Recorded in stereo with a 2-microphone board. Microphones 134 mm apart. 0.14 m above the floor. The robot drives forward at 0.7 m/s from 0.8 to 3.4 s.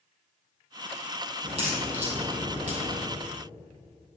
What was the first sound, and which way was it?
A crack, 50° right (ahead or behind).